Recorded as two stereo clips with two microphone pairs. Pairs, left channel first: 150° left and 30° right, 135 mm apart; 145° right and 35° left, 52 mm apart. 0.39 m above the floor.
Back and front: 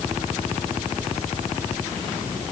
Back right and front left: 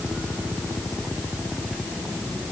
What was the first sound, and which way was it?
Only background noise.